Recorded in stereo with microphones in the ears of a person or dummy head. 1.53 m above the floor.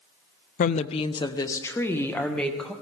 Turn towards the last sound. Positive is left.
turn(degrees=10)  # may be behind; listen again after turning